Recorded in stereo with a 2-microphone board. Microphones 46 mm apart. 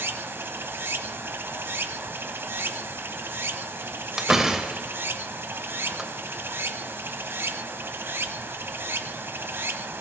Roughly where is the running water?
Right.